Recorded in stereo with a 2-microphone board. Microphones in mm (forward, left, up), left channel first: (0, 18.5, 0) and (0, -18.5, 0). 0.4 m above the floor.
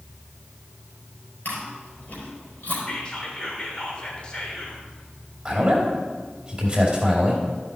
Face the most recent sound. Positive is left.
turn(degrees=-20)  # may be behind; listen again after turning